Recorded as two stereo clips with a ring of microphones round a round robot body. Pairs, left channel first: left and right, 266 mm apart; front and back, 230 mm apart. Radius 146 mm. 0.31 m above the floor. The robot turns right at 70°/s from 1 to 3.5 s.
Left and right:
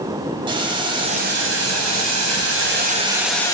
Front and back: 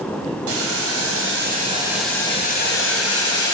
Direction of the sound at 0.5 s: 165° right.